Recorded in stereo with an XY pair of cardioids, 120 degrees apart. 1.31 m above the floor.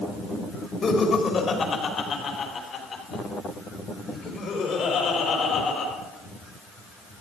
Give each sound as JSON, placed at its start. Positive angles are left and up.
{"t": 0.8, "sound": "laughter", "azimuth_deg": 35, "distance_m": 3.0}